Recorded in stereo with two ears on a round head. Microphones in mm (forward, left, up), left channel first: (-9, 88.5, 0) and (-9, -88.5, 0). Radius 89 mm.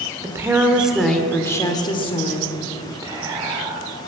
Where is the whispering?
20° right (ahead or behind), 1.0 m.